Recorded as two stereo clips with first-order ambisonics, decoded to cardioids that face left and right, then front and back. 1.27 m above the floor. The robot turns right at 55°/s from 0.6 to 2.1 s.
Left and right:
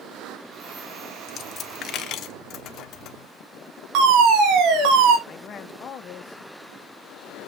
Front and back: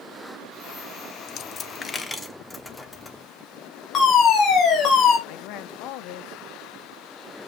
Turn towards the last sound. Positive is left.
turn(degrees=30)